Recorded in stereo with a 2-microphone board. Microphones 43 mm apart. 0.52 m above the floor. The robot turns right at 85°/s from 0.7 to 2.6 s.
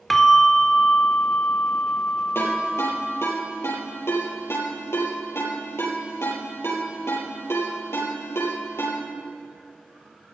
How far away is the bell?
About 1.3 m.